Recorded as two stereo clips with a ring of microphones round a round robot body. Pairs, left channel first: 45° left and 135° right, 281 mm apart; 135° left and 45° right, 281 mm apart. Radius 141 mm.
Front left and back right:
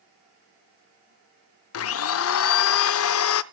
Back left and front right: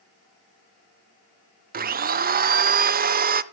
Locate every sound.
1.7 s a blender: 10° left, 0.6 m